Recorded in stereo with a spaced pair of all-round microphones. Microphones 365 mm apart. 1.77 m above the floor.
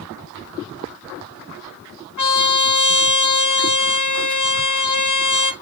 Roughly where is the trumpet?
Left.